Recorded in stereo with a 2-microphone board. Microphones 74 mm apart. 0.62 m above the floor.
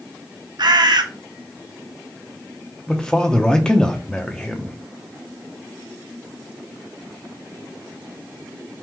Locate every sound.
0.6 s a bird: 70° right (ahead or behind), 0.6 m
2.9 s a man speaking: 10° left (ahead or behind), 0.7 m